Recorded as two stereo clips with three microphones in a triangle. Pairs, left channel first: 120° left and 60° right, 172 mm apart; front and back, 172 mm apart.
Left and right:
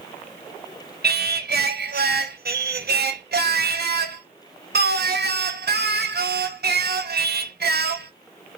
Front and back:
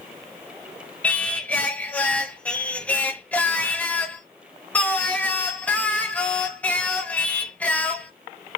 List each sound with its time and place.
1.0 s singing: 80° right, 0.6 m